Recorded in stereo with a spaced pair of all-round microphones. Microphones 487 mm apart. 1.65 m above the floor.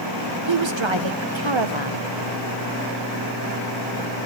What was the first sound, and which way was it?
A woman speaking, 65° right (ahead or behind).